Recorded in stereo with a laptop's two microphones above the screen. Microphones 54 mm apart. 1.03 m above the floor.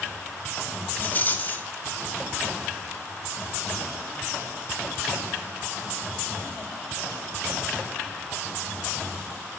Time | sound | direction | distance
1.0 | a rattle | 35° left (ahead or behind) | 1.2 m